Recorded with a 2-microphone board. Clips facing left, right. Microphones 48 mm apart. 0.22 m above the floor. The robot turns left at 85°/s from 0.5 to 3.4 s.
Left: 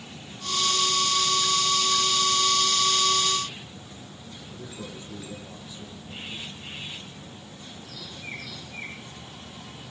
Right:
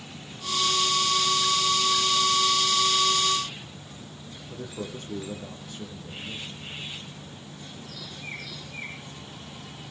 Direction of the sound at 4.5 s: 55° right (ahead or behind).